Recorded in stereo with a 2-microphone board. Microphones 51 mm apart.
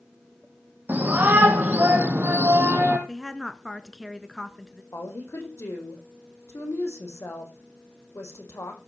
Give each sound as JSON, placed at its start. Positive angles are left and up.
{"t": 0.9, "sound": "a shout", "side_deg": -40, "distance_m": 4.5}
{"t": 3.1, "sound": "a woman speaking", "side_deg": 5, "distance_m": 1.2}
{"t": 4.9, "sound": "a woman speaking", "side_deg": 65, "distance_m": 5.0}